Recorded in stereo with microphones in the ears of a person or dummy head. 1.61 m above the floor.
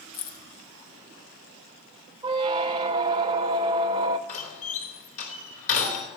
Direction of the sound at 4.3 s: 40° left (ahead or behind).